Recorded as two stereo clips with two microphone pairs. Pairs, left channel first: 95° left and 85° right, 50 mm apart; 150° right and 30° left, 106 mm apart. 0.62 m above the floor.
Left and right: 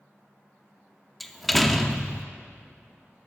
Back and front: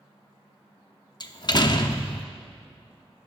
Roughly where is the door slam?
Behind.